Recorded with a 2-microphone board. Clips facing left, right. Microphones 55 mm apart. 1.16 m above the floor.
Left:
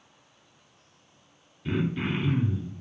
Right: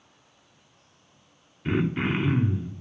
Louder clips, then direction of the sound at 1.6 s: Right 3 dB; 40° right (ahead or behind).